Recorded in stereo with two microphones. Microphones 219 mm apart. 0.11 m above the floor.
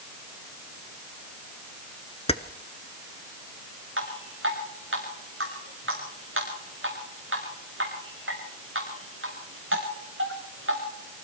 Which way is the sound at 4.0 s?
65° right (ahead or behind).